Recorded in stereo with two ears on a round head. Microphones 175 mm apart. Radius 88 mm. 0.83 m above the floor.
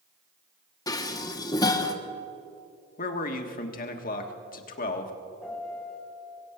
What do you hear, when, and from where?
0.9 s dishes clattering: 20° left (ahead or behind), 0.9 m
3.0 s a man speaking: 45° left (ahead or behind), 1.4 m
5.4 s a piano: 5° left (ahead or behind), 3.5 m